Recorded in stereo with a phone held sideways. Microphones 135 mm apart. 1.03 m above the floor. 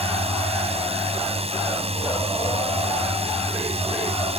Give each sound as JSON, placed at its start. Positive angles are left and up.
{"t": 0.0, "sound": "a drone", "side_deg": -50}